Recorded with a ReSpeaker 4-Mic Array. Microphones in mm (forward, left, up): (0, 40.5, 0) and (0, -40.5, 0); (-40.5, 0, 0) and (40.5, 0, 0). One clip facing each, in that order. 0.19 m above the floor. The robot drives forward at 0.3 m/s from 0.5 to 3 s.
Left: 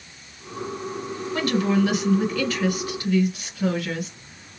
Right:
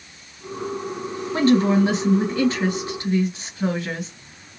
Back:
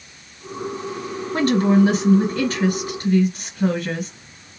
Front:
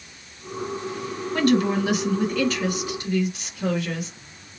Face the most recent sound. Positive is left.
turn(degrees=-145)